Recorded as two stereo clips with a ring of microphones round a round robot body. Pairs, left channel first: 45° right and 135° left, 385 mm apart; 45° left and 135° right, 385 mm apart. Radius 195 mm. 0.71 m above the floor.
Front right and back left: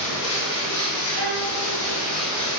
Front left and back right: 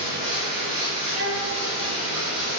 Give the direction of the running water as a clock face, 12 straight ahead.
2 o'clock.